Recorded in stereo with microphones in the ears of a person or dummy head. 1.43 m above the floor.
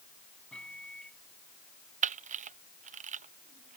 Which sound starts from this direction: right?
A camera shutter, at 2.0 s.